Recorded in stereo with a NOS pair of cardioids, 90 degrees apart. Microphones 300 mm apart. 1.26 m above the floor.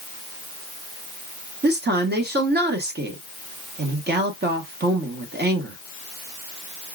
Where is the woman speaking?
35° right, 1.8 m.